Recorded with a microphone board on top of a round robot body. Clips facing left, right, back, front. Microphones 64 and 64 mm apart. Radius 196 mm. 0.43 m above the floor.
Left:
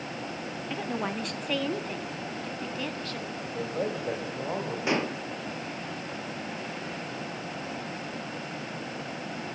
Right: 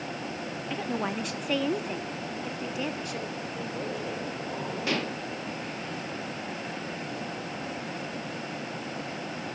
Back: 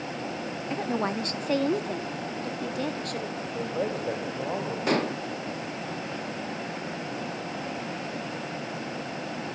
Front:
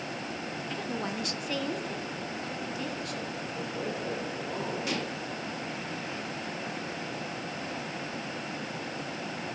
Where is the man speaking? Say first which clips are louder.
Left 3 dB, back 7 dB; 145° left, 4 m.